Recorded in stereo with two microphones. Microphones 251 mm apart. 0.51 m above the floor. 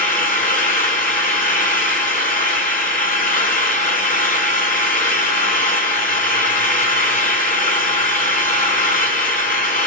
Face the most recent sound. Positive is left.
turn(degrees=30)  # may be behind; listen again after turning